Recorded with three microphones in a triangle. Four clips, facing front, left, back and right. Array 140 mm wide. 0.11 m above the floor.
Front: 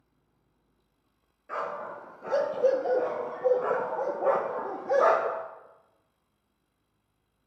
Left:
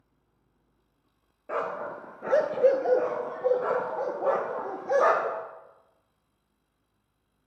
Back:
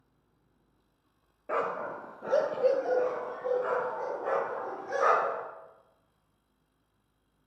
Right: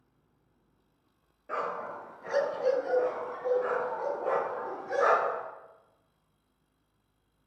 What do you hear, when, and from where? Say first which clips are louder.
1.5 s a dog barking: left 3 dB, back 3 dB; 150° left, 0.9 m; by 5.4 s 35° left, 2.5 m